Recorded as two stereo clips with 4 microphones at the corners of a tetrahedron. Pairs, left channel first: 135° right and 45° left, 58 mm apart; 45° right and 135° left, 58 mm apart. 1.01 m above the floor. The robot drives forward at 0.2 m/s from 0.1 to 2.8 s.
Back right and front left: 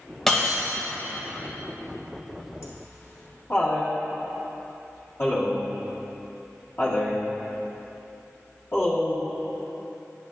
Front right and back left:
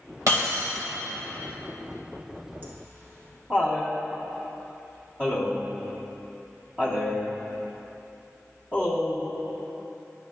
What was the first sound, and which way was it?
Breaking glass, 145° left.